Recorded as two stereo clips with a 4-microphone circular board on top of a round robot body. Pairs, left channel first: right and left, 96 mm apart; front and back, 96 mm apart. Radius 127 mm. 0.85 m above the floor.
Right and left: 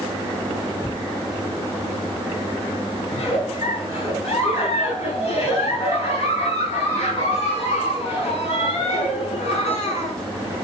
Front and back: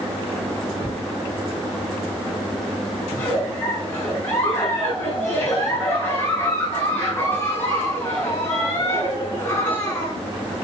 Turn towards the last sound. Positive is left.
turn(degrees=-65)